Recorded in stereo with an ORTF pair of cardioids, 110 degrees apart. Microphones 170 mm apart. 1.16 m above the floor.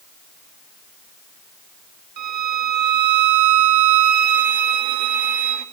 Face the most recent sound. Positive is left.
turn(degrees=-65)